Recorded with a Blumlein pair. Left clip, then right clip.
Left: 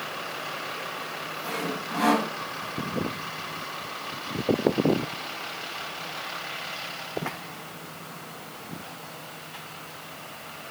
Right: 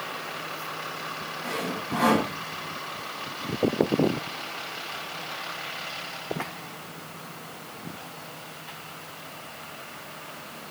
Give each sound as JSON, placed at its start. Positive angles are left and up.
{"t": 1.4, "sound": "sawing", "azimuth_deg": -5, "distance_m": 5.5}